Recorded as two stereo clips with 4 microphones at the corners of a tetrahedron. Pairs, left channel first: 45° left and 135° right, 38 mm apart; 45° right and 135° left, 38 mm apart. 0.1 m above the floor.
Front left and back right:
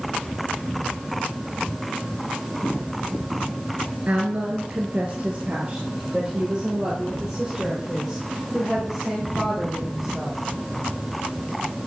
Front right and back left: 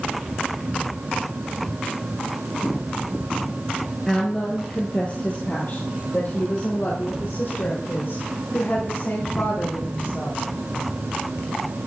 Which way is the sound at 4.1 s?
120° right.